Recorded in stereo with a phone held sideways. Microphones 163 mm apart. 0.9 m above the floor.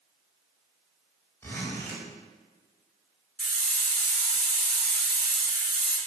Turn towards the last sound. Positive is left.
turn(degrees=0)  # may be behind; listen again after turning